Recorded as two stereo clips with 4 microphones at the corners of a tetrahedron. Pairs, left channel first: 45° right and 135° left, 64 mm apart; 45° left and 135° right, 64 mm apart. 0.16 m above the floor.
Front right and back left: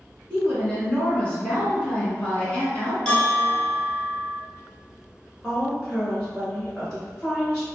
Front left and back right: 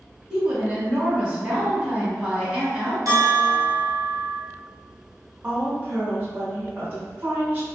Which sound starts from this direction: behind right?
A bell, at 3.0 s.